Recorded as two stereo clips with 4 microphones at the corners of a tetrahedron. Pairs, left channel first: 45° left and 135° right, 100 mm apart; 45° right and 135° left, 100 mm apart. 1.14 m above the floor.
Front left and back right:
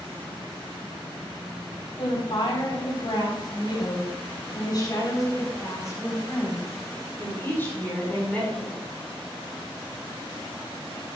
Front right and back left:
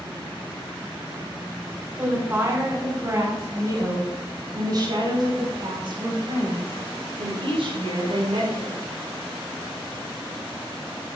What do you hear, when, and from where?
2.0 s a woman speaking: 70° left, 4 m; by 8.8 s 125° left, 4.5 m